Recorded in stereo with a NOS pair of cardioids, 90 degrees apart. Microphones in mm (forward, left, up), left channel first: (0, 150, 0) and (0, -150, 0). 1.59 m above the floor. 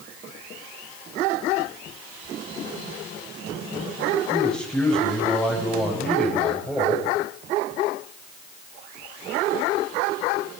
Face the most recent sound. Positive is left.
turn(degrees=0)